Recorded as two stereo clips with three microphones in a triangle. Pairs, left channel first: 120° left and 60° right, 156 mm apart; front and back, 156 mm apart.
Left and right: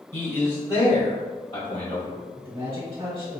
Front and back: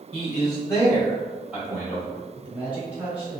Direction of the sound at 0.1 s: 55° left.